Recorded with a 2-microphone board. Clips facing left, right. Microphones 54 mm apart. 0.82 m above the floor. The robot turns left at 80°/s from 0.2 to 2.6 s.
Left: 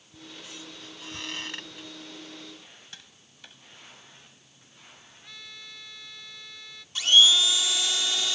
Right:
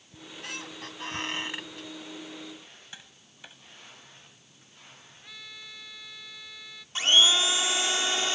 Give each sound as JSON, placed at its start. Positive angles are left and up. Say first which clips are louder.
{"t": 0.1, "sound": "a squeak", "louder": "right 4 dB", "azimuth_deg": -60}
{"t": 2.9, "sound": "tapping", "louder": "right 1 dB", "side_deg": -15}
{"t": 5.2, "sound": "a trumpet", "louder": "even", "side_deg": -5}
{"t": 7.0, "sound": "a blender", "louder": "left 2 dB", "side_deg": -35}